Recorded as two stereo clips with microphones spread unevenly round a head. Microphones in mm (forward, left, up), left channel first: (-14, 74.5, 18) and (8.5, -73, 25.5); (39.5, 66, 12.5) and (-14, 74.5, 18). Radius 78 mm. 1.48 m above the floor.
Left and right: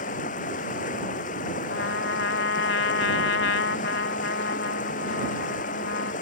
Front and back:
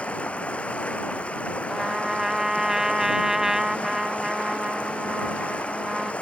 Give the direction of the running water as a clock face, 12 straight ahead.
10 o'clock.